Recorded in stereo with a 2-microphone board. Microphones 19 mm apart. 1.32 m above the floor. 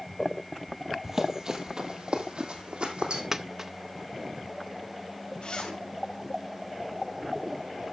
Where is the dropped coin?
20° right (ahead or behind), 0.6 m.